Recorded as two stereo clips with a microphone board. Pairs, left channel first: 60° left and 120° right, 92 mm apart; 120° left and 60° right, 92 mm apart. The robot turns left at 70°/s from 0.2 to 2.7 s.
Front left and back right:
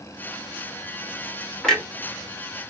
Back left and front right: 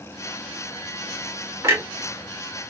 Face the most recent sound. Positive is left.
turn(degrees=-90)